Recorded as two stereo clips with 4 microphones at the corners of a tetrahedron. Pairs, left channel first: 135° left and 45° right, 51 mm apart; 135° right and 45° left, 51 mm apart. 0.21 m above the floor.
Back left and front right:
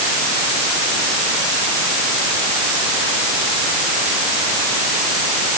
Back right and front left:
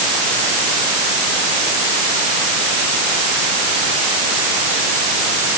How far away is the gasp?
I don't hear a gasp.